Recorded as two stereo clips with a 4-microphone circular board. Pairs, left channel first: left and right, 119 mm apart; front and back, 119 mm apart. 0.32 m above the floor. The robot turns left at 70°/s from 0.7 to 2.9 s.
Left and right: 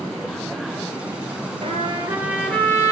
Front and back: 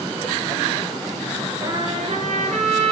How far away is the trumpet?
About 2.5 m.